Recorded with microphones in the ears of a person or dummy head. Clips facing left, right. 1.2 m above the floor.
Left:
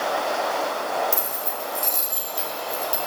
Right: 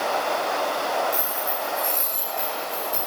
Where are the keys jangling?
75° left (ahead or behind), 2.5 m; by 3.0 s 45° left (ahead or behind), 3 m.